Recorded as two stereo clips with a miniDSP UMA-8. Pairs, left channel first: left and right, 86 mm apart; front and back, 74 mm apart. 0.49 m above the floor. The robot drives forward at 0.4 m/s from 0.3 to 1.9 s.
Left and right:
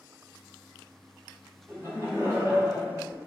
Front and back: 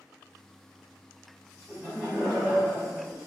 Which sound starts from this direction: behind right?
Laughter, at 1.7 s.